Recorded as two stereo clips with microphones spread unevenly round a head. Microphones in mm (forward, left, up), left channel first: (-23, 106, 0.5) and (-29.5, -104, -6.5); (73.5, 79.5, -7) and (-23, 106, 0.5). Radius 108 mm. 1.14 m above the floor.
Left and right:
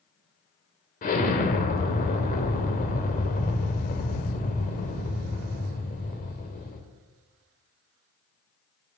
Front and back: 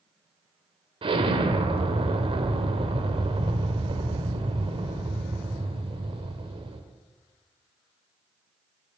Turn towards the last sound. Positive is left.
turn(degrees=140)